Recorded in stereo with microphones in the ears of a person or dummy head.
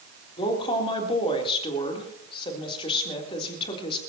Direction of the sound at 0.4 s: 30° left (ahead or behind).